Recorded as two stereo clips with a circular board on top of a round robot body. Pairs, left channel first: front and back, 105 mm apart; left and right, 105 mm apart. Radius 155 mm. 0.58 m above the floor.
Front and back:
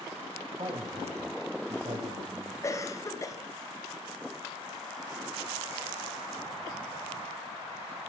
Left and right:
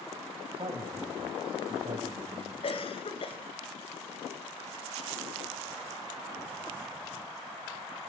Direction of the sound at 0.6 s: 135° right.